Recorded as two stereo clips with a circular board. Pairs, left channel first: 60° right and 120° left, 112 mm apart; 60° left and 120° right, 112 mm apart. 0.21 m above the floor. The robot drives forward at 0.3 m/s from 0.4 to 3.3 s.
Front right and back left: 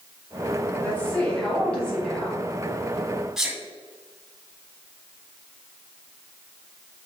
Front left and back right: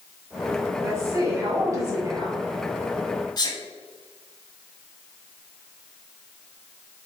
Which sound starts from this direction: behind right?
A woman speaking, at 0.8 s.